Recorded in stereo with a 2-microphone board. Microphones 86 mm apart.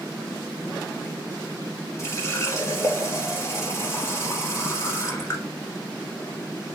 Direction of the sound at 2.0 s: 35° left (ahead or behind).